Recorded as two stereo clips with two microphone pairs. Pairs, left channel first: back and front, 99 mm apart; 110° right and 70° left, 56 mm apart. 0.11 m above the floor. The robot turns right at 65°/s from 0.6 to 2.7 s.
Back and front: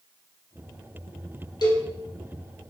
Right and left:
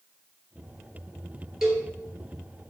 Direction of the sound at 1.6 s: 155° left.